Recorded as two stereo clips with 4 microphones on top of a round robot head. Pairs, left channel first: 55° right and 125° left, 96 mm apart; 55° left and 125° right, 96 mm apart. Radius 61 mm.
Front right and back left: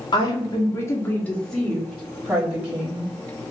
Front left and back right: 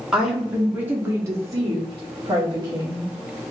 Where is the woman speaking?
45° right, 0.9 m; by 3.1 s straight behind, 1.4 m.